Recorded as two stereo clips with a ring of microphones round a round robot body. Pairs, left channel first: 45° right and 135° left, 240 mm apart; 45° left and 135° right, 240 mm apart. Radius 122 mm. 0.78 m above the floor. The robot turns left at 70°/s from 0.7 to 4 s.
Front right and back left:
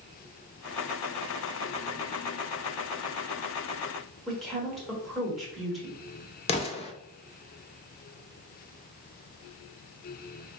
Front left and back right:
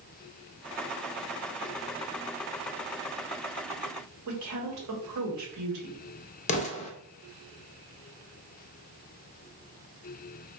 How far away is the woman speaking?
About 1.4 m.